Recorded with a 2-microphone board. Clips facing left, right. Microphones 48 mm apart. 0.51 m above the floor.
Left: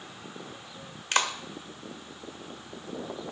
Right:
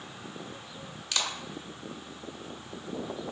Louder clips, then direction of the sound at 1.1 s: Left 6 dB; 45° left (ahead or behind).